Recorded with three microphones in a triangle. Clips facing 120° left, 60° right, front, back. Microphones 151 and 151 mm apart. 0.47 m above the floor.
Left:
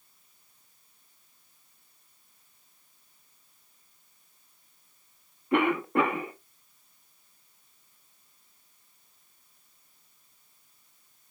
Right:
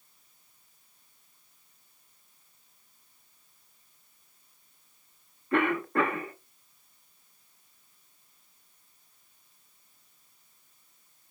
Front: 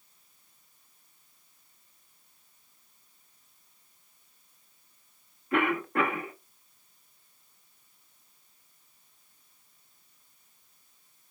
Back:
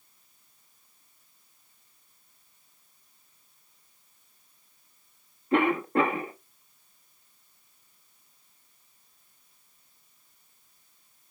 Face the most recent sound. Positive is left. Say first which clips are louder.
# left 2 dB, back 4 dB
turn(degrees=170)